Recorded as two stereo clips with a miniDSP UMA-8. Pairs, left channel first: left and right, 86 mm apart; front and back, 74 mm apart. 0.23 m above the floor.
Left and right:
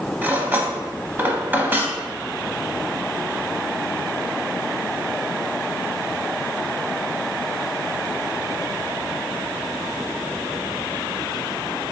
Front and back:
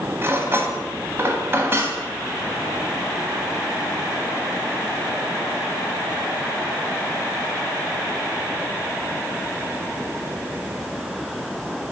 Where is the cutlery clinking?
140° right, 0.8 m.